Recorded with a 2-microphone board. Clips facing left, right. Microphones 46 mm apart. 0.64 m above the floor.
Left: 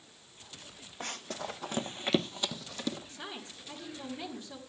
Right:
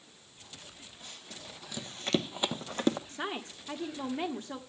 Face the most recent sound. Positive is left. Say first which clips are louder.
# right 7 dB
turn(degrees=-45)  # may be behind; listen again after turning